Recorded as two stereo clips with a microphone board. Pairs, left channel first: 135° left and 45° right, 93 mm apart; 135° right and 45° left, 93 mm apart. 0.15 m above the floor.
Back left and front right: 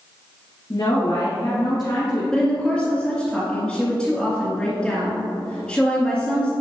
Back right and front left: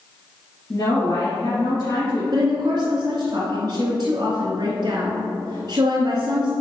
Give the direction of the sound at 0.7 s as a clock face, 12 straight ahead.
6 o'clock.